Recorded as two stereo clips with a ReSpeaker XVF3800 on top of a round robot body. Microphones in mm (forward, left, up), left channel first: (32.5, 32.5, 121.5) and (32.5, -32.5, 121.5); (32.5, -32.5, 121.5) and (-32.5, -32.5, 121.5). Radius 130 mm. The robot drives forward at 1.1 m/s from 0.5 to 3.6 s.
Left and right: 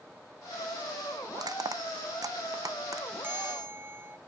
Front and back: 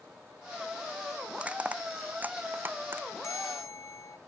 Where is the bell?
35° right; by 4.2 s 40° right.